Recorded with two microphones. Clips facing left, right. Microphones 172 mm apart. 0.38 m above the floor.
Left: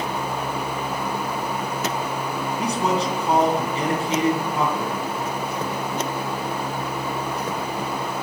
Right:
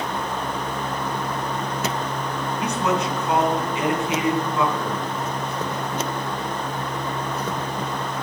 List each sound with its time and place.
2.6 s a man speaking: 35° left (ahead or behind), 3 m